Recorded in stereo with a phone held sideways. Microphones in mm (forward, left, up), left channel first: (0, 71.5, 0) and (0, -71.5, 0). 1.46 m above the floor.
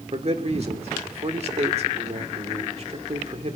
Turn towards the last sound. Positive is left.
turn(degrees=-50)  # may be behind; listen again after turning